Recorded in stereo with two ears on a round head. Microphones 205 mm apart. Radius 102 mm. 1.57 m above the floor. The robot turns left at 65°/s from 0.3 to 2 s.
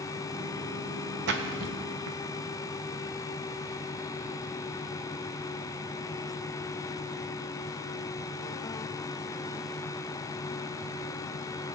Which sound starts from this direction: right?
A splash, at 1.3 s.